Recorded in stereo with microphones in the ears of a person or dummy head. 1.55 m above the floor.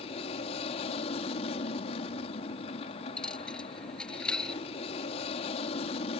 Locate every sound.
0.0 s an aircraft: 40° left (ahead or behind)
3.2 s a dropped coin: 15° left (ahead or behind)